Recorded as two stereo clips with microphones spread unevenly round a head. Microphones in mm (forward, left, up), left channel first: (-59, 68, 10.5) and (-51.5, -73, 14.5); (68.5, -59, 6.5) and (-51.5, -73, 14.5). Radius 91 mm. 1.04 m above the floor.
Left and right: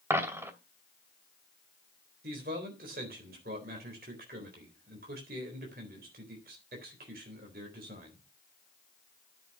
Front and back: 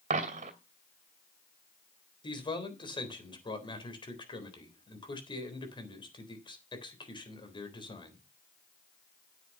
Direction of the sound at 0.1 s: 160° right.